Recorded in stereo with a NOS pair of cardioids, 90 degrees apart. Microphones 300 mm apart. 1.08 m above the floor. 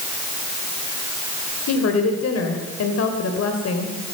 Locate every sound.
1.7 s a woman speaking: 55° left, 3.5 m